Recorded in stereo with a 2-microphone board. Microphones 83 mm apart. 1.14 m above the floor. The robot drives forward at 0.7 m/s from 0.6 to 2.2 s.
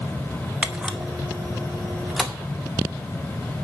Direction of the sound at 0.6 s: 15° right (ahead or behind).